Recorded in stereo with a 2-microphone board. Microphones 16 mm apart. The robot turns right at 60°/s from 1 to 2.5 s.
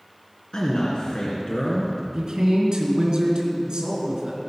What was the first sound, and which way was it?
A man speaking, 85° left.